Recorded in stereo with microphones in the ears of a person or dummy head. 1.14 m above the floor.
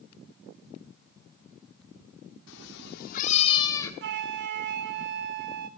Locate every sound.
2.5 s a cat meowing: 65° left (ahead or behind), 1.3 m; by 3.9 s 15° left (ahead or behind), 1.2 m
4.0 s a flute: 60° right (ahead or behind), 0.8 m